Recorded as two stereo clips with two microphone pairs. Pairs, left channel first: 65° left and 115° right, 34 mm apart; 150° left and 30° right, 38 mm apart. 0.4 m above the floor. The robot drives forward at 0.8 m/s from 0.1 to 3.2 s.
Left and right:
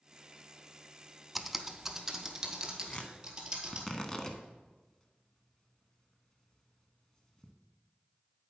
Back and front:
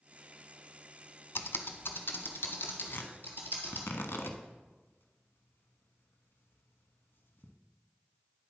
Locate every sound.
1.4 s typing on a keyboard: 160° left, 0.6 m; by 3.9 s 175° left, 2 m
2.9 s tearing paper: 125° left, 0.9 m; by 7.5 s 135° left, 1.0 m